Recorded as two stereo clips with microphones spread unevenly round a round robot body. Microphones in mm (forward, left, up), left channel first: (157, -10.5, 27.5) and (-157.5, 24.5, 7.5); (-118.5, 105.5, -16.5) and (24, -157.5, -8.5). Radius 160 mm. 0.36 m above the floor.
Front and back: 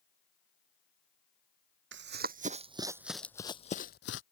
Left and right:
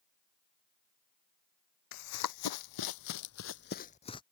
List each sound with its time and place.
1.9 s running footsteps: 120° left; by 4.2 s 40° left